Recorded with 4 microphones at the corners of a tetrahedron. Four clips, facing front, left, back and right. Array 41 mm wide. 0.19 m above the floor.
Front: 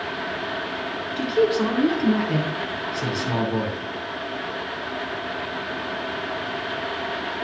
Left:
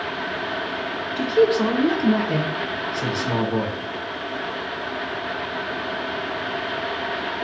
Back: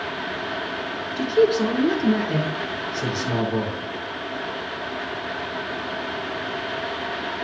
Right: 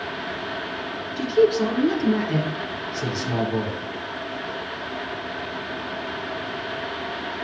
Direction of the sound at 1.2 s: 50° left.